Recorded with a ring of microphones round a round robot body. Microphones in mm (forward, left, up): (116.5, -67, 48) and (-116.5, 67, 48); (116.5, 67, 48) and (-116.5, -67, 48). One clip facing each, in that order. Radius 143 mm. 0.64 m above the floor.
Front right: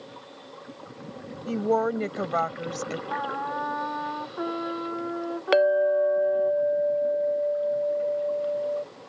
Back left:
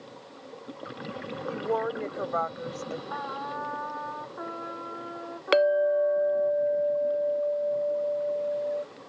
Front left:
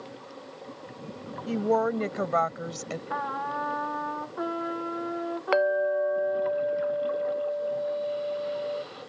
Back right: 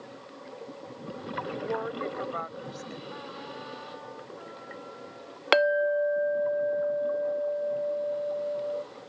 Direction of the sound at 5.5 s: 130° right.